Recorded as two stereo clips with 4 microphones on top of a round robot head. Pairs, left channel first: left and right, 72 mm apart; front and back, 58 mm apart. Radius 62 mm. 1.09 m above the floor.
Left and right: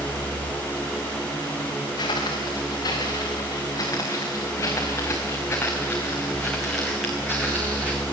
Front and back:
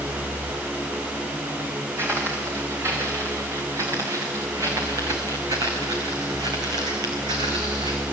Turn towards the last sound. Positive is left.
turn(degrees=-165)